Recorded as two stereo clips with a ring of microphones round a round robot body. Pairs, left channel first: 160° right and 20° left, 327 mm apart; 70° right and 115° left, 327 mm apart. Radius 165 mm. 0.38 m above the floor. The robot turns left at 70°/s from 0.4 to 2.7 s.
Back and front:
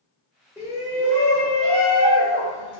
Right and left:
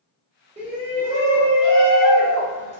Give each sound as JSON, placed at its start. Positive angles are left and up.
{"t": 0.6, "sound": "a shout", "azimuth_deg": 95, "distance_m": 0.8}